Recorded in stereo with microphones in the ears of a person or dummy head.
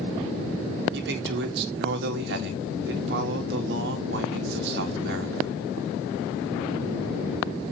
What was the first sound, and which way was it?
A man speaking, 70° right (ahead or behind).